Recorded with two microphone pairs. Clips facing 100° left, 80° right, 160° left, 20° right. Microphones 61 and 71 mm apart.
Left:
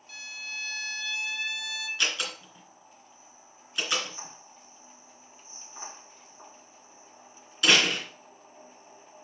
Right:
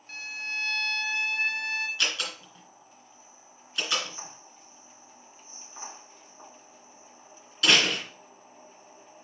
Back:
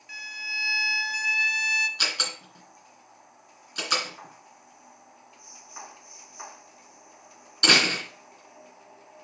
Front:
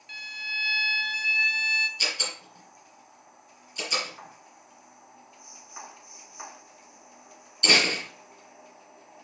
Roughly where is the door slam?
Behind.